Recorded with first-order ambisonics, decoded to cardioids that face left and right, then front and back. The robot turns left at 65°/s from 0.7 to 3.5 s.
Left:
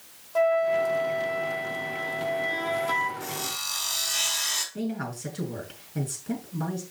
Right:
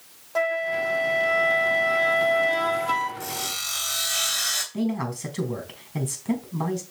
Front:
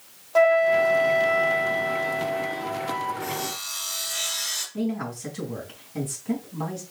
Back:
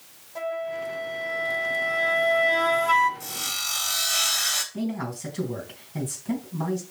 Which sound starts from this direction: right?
A man speaking, at 4.7 s.